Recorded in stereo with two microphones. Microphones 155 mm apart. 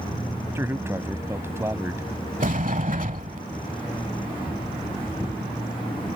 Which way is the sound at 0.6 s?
15° right (ahead or behind).